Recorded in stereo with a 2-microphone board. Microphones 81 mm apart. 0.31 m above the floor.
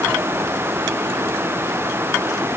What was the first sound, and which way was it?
Only background noise.